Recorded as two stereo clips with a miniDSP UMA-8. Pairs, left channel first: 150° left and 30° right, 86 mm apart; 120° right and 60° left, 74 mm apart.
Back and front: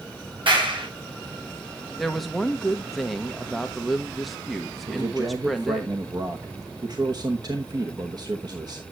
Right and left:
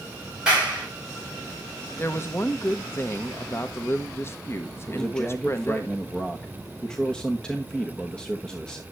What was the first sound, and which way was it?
A clap, 15° right.